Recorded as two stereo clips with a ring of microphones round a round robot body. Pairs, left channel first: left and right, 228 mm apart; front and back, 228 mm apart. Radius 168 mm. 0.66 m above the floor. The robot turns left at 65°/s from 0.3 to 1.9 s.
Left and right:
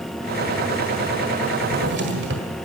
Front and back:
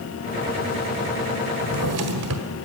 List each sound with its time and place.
1.6 s a drawer: 125° right, 1.4 m; by 2.5 s 145° right, 1.4 m